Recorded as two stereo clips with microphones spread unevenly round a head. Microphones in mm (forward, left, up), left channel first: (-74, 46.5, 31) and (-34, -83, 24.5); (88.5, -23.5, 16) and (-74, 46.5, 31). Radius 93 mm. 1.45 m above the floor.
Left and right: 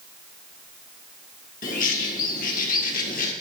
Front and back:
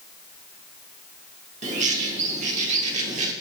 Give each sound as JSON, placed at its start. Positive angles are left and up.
{"t": 1.6, "sound": "a bird", "azimuth_deg": 115, "distance_m": 1.8}